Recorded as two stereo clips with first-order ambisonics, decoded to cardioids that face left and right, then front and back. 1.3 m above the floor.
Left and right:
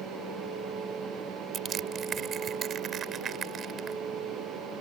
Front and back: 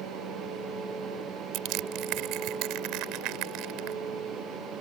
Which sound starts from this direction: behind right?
Crushing, at 1.5 s.